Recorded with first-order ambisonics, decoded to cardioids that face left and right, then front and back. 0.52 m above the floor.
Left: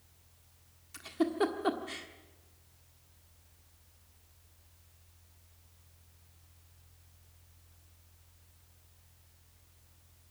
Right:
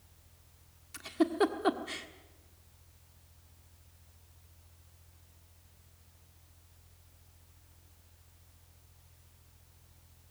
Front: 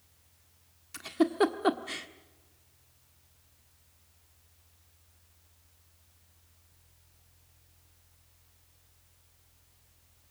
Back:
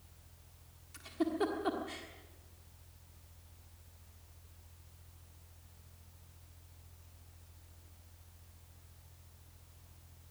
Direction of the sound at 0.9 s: 10° right.